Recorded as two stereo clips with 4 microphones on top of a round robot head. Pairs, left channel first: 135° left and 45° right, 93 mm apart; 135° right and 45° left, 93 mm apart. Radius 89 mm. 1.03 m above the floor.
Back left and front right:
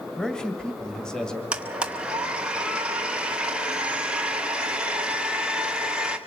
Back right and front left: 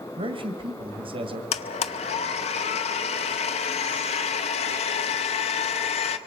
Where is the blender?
125° right, 0.7 m.